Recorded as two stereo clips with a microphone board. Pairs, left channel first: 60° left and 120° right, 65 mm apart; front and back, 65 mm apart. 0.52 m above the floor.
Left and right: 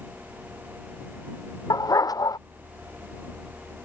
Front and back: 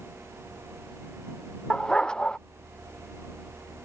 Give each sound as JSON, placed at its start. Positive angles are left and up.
{"t": 1.7, "sound": "a dog barking", "azimuth_deg": 75}